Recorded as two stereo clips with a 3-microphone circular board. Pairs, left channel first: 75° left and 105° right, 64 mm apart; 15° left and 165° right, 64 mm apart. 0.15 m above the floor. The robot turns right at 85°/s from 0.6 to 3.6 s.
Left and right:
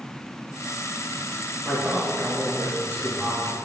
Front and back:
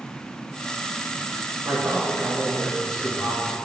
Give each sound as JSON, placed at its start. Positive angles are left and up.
{"t": 1.6, "sound": "a man speaking", "azimuth_deg": -175, "distance_m": 1.5}